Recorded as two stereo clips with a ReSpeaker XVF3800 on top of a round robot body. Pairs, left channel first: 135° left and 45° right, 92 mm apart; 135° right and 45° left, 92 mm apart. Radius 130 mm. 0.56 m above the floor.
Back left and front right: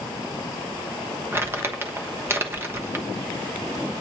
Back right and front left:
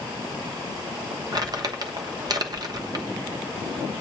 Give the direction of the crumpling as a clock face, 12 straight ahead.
12 o'clock.